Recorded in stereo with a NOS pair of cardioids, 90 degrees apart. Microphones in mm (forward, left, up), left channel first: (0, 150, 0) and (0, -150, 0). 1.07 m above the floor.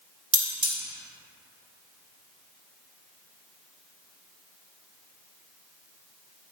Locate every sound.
0.3 s cutlery clinking: 40° right, 0.9 m